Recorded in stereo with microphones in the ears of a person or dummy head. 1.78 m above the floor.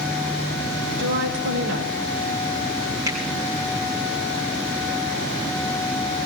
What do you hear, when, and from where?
1.0 s a woman speaking: 65° right (ahead or behind), 5.5 m
3.1 s a finger snap: 15° right (ahead or behind), 5 m